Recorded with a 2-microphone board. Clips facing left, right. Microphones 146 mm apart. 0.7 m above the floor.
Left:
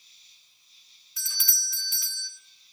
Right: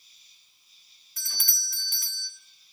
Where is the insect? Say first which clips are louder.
Even; 10° right (ahead or behind), 9.5 m.